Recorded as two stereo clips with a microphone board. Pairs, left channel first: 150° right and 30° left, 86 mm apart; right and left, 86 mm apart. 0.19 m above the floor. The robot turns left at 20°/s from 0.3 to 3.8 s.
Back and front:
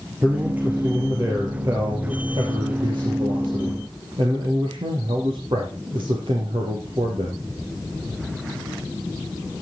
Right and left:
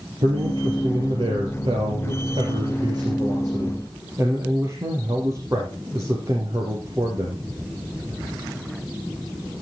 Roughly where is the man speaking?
Left.